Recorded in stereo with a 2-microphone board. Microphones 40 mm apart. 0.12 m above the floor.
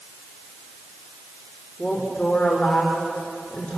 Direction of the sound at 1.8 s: 25° left (ahead or behind).